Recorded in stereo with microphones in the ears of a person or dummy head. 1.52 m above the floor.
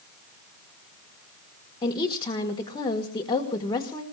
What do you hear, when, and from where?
1.8 s a woman speaking: 25° left (ahead or behind), 1.9 m